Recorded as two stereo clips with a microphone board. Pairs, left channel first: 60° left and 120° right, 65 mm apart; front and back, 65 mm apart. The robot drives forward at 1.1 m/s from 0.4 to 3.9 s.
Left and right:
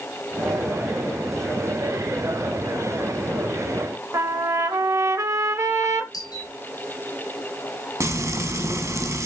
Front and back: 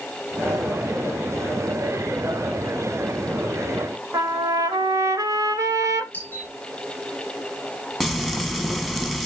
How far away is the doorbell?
About 8.5 m.